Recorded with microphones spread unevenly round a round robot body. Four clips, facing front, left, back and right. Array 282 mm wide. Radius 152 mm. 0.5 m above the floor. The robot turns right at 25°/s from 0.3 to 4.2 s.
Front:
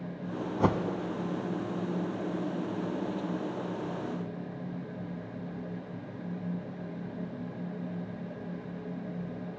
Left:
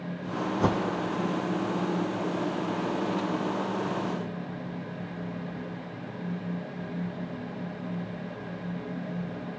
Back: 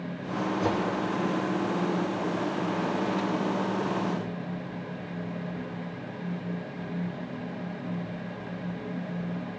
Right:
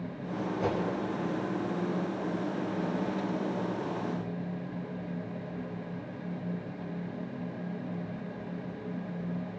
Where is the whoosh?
40° left, 0.6 m; by 0.8 s 45° left, 0.6 m.